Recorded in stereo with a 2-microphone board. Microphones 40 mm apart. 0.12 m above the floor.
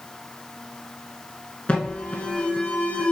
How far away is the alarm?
About 0.9 m.